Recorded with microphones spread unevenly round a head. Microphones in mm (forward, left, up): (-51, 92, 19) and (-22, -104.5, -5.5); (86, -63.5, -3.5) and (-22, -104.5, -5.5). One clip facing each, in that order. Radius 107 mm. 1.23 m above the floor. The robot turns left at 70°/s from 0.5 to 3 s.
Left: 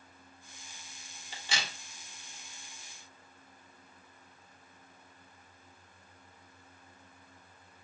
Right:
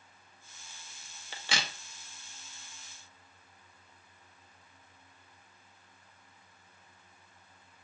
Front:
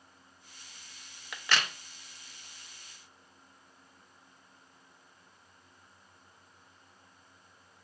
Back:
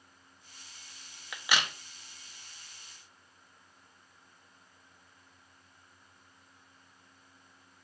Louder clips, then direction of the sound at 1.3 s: Right 2 dB, even; 70° right.